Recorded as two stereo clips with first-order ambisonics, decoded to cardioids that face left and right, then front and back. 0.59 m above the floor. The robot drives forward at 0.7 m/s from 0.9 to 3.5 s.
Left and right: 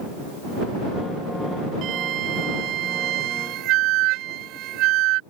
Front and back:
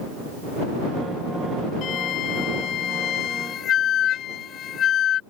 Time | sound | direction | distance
1.8 | a flute | 45° right | ?